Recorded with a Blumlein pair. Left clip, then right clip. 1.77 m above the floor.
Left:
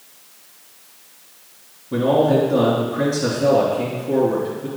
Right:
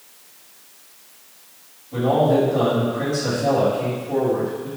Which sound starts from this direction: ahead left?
A man speaking, at 1.9 s.